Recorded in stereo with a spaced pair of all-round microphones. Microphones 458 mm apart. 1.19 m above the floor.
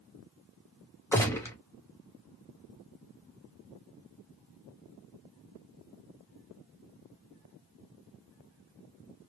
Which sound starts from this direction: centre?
A gunshot, at 1.1 s.